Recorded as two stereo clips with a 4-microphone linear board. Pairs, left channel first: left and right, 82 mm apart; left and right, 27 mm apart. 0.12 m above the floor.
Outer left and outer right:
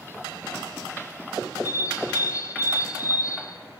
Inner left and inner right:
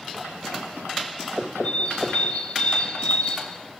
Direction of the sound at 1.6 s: 45° left (ahead or behind).